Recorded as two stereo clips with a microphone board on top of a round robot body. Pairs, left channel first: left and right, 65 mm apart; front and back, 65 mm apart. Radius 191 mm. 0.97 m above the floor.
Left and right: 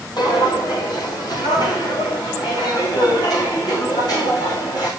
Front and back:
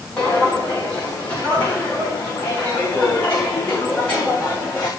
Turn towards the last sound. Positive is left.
turn(degrees=75)